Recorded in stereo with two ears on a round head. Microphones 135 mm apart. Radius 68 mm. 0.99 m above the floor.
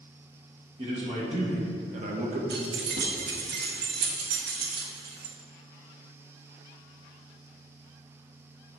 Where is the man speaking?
40° right (ahead or behind), 1.5 m; by 2.4 s 50° right (ahead or behind), 1.0 m.